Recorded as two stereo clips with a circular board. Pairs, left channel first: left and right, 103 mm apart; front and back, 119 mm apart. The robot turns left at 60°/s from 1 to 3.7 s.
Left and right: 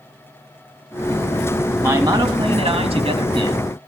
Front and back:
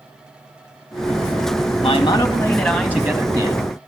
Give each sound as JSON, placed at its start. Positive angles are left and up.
{"t": 1.8, "sound": "a man speaking", "azimuth_deg": -35, "distance_m": 2.5}